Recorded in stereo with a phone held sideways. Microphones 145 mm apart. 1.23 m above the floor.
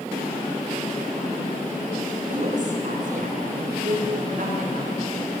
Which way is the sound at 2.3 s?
60° right (ahead or behind).